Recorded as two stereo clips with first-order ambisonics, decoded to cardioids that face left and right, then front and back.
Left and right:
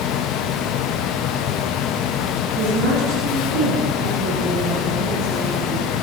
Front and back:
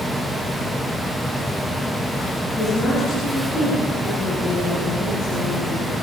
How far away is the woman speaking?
About 6.5 m.